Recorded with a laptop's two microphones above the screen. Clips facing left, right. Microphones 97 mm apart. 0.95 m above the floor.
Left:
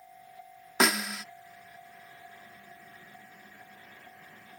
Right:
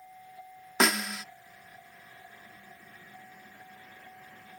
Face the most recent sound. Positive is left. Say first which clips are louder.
# even
turn(degrees=0)  # may be behind; listen again after turning